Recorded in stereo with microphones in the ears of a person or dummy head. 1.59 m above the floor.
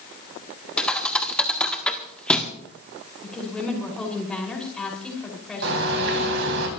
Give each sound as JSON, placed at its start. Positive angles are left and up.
{"t": 0.8, "sound": "a thud", "side_deg": 5, "distance_m": 1.6}
{"t": 3.2, "sound": "a woman speaking", "side_deg": 5, "distance_m": 5.5}
{"t": 5.6, "sound": "a bird", "side_deg": -60, "distance_m": 3.0}